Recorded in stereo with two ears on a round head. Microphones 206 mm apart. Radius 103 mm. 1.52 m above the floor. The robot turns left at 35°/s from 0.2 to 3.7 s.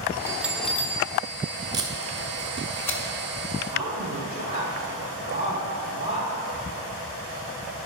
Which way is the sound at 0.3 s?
170° right.